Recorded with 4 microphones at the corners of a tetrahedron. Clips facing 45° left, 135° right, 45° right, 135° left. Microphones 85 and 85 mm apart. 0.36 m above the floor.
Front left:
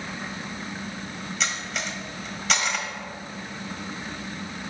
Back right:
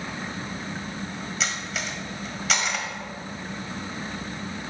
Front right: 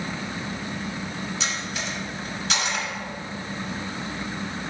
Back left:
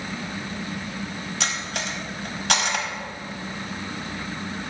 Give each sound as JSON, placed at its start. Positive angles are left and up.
{"t": 1.4, "sound": "cutlery clinking", "azimuth_deg": 135, "distance_m": 1.2}